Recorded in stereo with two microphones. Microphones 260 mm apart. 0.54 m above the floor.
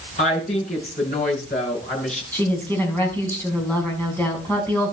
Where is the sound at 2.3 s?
5° left (ahead or behind), 5.5 m.